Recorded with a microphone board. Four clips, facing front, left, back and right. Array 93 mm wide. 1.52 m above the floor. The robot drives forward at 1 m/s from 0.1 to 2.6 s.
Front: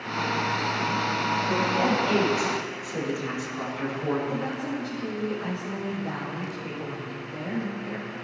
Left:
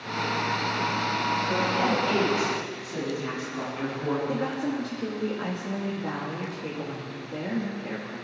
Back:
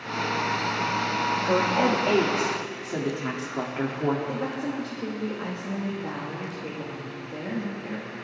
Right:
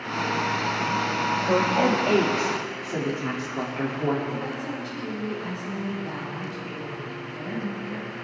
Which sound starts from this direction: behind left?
A woman speaking, at 4.3 s.